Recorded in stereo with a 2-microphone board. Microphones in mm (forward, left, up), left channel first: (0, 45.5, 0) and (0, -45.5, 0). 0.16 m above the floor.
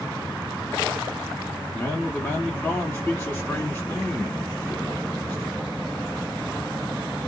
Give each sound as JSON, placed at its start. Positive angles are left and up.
{"t": 1.7, "sound": "a man speaking", "side_deg": 20, "distance_m": 1.2}